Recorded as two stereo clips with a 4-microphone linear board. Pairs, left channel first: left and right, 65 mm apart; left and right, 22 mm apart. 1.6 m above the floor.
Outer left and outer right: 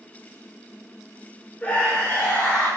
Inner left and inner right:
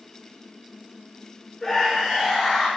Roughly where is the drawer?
No drawer in this recording.